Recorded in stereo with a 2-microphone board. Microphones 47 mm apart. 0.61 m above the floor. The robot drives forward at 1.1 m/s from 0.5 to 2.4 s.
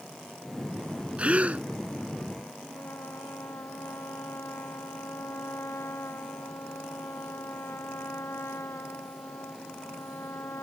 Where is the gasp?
25° right (ahead or behind); by 1.6 s 30° right (ahead or behind).